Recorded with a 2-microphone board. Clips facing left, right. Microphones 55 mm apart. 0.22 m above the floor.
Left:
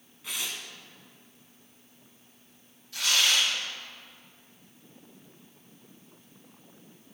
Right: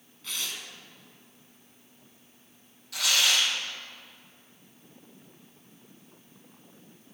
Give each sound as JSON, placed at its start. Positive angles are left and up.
{"t": 0.2, "sound": "tearing paper", "side_deg": 15, "distance_m": 2.5}
{"t": 2.9, "sound": "tearing paper", "side_deg": -80, "distance_m": 5.0}